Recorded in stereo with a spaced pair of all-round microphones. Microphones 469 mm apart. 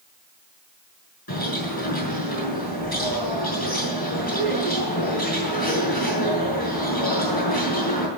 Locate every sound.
1.3 s a bird: 50° left (ahead or behind), 6.5 m